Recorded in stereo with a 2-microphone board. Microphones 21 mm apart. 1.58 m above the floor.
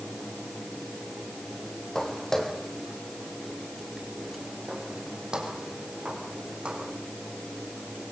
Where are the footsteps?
25° left (ahead or behind), 3.5 m; by 6.9 s 50° right (ahead or behind), 5 m.